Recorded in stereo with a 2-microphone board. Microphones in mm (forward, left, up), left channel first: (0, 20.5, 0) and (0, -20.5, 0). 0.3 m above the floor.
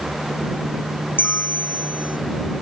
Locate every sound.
1.2 s a bell: 50° left (ahead or behind)